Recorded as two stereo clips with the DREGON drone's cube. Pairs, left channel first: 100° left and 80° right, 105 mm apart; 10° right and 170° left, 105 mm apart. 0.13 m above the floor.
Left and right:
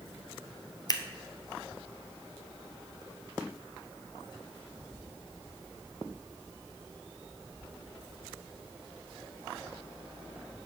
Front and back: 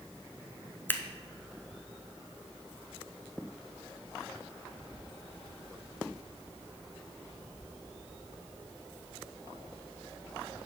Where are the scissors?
55° left, 0.6 m.